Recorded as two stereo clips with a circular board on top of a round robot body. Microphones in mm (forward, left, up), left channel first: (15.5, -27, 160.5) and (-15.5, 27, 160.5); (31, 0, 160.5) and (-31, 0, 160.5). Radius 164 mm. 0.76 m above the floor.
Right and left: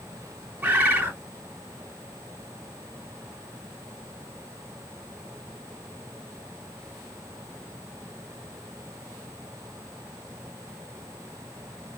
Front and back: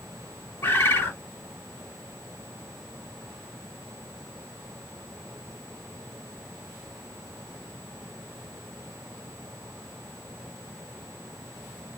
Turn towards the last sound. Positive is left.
turn(degrees=55)